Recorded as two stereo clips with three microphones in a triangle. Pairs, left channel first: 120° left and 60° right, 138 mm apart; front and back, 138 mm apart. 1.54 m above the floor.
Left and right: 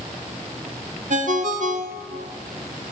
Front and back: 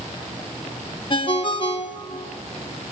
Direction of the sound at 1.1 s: 50° right.